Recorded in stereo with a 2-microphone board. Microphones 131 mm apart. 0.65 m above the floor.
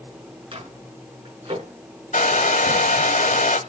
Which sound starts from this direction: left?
A hair dryer, at 2.1 s.